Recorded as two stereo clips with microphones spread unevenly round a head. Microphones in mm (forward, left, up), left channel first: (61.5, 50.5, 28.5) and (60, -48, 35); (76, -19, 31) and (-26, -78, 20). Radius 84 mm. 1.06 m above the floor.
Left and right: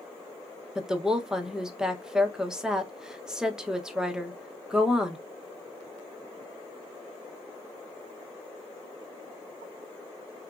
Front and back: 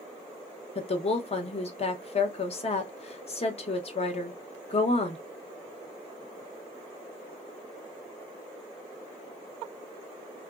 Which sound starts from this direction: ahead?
A woman speaking, at 0.8 s.